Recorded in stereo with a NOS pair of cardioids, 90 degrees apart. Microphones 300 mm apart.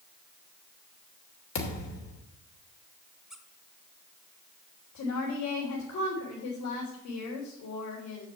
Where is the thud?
65° left, 3 m.